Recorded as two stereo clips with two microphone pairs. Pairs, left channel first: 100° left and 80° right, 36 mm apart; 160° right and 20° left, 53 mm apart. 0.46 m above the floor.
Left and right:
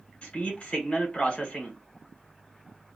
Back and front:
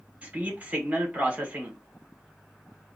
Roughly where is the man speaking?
Left.